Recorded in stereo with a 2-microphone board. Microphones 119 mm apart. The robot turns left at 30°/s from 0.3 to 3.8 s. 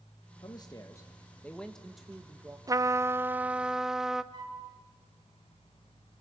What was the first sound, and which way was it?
A man speaking, 45° left.